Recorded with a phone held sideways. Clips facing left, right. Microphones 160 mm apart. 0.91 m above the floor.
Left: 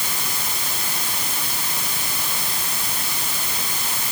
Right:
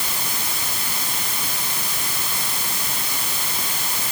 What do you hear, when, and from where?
Only background noise.